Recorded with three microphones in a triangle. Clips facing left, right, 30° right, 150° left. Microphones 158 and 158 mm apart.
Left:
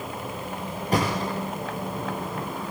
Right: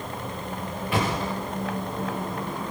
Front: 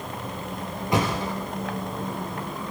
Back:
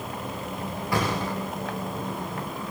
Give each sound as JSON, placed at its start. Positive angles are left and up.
{"t": 0.9, "sound": "a thud", "azimuth_deg": 40, "distance_m": 8.5}